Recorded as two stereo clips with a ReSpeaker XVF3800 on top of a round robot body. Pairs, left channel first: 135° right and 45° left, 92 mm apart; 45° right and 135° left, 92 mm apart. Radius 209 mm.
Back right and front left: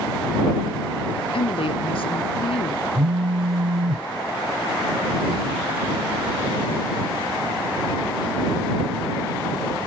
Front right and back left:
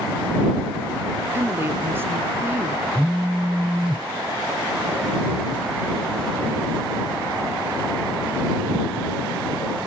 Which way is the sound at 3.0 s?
50° left.